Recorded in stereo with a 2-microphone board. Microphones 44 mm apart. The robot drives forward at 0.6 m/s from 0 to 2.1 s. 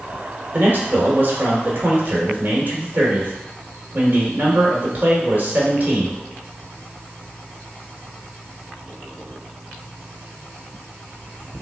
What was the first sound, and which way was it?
A man speaking, 45° right (ahead or behind).